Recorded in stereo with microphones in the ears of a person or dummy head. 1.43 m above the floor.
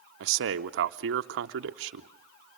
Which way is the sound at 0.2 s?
70° right (ahead or behind).